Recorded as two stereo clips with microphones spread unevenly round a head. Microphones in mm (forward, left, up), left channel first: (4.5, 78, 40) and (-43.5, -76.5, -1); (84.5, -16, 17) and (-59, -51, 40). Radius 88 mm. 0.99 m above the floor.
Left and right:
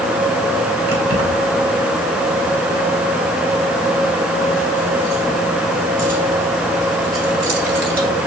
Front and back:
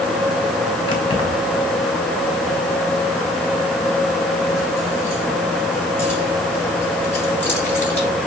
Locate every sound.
0.9 s keys jangling: 45° right, 4.5 m; by 8.1 s 65° right, 10.5 m